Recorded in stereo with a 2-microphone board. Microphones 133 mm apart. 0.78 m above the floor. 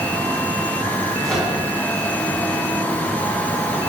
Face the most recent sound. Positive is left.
turn(degrees=5)  # may be behind; listen again after turning